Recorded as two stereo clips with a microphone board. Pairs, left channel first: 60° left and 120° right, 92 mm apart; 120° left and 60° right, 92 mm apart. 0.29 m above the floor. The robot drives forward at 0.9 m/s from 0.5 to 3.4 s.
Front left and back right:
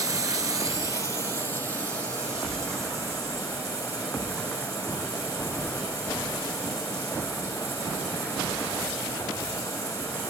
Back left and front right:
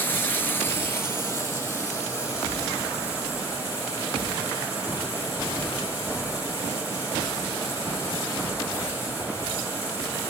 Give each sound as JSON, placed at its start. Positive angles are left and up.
{"t": 0.0, "sound": "running water", "azimuth_deg": -170, "distance_m": 0.8}